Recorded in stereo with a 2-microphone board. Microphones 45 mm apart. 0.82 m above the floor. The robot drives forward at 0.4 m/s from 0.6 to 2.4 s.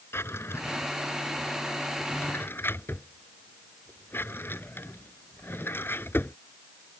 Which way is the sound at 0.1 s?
70° left (ahead or behind).